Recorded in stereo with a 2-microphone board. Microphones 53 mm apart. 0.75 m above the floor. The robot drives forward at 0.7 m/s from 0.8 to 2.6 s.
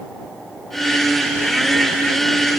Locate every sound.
Only background noise.